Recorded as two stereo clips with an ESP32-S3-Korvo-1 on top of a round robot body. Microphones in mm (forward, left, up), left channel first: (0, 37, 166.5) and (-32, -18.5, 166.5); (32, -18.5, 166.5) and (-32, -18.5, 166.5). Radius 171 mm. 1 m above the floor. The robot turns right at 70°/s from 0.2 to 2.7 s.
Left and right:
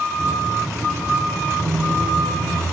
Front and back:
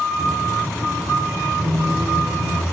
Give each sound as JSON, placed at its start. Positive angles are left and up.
{"t": 1.6, "sound": "a squeak", "azimuth_deg": 180, "distance_m": 1.9}